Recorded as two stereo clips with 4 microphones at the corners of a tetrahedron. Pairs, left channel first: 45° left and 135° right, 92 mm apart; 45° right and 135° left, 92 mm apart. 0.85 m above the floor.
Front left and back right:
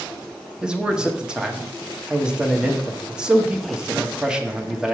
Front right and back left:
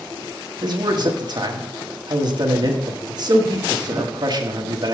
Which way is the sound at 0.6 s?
145° left.